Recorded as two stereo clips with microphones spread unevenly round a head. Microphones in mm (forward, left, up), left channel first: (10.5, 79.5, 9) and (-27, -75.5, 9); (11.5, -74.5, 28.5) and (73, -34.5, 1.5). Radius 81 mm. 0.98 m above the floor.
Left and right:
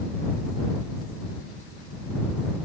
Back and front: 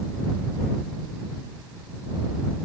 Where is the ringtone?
No ringtone in this recording.